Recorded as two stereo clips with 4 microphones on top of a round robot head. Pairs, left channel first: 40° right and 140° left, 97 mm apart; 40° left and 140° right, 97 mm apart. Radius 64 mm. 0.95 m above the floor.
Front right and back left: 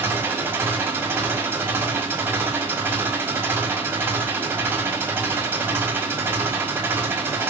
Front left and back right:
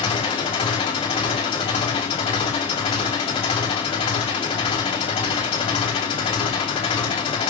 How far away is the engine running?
About 5.5 m.